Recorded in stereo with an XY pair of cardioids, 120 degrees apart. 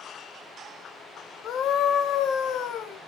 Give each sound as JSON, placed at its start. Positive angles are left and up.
{"t": 1.4, "sound": "a scream", "azimuth_deg": 55, "distance_m": 2.5}